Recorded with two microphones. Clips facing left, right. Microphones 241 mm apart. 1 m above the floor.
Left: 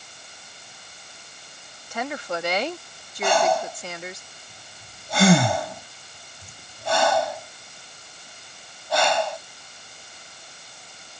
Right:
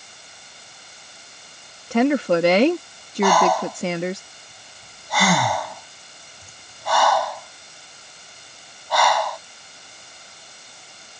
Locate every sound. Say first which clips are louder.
1.9 s a woman speaking: right 13 dB; 60° right (ahead or behind)
3.2 s breathing: right 3 dB; 25° left (ahead or behind)